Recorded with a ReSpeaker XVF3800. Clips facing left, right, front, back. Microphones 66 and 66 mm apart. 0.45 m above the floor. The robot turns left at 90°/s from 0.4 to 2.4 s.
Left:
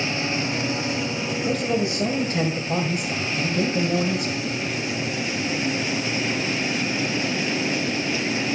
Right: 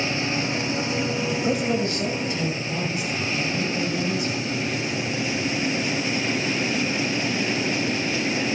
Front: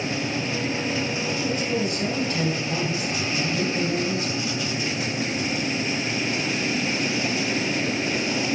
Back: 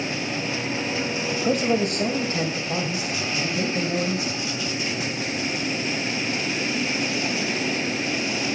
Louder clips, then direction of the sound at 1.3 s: Left 1 dB, back 6 dB; 150° right.